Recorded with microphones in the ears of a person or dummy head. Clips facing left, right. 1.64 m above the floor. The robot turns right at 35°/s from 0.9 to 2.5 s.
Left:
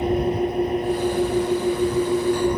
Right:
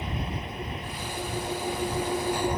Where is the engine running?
40° left; by 2.6 s 95° left.